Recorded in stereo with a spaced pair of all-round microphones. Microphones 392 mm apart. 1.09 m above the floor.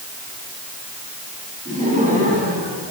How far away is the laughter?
About 9.5 m.